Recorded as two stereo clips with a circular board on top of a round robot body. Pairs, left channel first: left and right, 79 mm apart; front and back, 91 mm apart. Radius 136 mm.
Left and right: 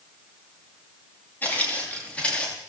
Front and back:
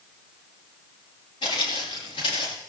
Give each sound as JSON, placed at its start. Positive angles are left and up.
{"t": 1.4, "sound": "footsteps", "azimuth_deg": 25, "distance_m": 5.5}